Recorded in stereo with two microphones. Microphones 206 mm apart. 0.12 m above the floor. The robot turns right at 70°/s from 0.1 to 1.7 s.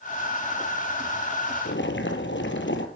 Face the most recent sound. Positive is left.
turn(degrees=65)  # may be behind; listen again after turning